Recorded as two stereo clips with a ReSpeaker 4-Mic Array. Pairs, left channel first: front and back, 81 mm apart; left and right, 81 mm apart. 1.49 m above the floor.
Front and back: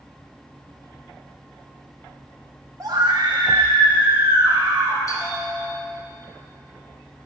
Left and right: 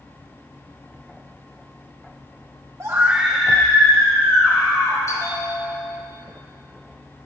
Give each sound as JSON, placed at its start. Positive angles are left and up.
{"t": 2.8, "sound": "a scream", "azimuth_deg": -140, "distance_m": 0.9}
{"t": 5.1, "sound": "a bell", "azimuth_deg": 45, "distance_m": 3.5}